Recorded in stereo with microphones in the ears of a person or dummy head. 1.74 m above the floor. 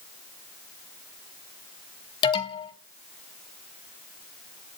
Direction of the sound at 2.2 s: 25° left (ahead or behind).